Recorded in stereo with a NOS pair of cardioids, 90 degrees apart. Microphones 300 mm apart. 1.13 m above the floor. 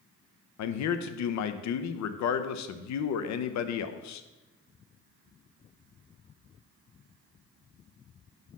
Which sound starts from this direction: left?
A man speaking, at 0.6 s.